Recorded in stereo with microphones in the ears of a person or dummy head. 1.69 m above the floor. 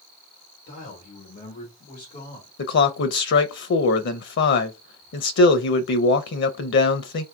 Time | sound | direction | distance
0.7 | a man speaking | 65° left (ahead or behind) | 1.2 m
2.6 | a man speaking | 55° left (ahead or behind) | 0.5 m